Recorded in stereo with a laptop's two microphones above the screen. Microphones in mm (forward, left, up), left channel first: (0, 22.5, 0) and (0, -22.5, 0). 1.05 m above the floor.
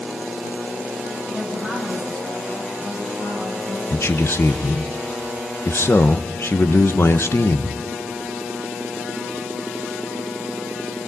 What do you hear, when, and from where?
1.3 s a woman speaking: centre (ahead or behind), 6 m
3.9 s a man speaking: 55° left (ahead or behind), 0.8 m